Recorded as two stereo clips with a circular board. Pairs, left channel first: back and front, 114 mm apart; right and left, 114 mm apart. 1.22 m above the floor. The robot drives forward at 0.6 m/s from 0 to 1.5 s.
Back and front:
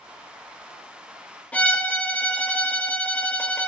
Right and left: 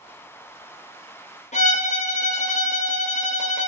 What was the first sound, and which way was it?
A violin, 100° right.